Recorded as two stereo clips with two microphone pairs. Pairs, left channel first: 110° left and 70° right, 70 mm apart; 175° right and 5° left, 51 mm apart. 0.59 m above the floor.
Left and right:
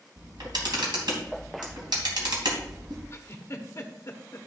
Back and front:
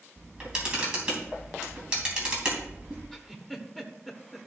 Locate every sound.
0.2 s a camera shutter: 70° right, 3.5 m
3.1 s a giggle: 95° left, 1.3 m